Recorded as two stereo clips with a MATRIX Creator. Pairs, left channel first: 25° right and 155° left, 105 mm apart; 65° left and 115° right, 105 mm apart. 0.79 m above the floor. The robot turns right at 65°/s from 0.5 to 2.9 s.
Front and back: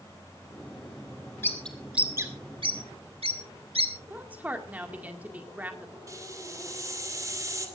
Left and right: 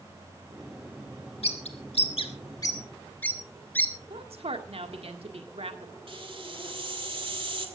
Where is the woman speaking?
130° right, 1.8 m.